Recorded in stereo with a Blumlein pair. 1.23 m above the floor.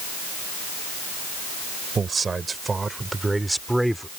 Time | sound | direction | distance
1.9 | a man speaking | 15° right | ?